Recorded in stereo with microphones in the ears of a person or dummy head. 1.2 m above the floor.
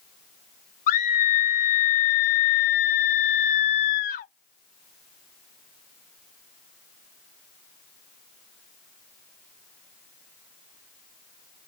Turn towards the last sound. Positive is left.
turn(degrees=50)  # may be behind; listen again after turning